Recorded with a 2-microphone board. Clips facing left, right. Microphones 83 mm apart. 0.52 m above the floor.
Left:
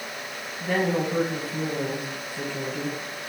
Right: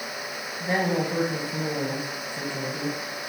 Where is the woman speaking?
30° right (ahead or behind), 3.5 m.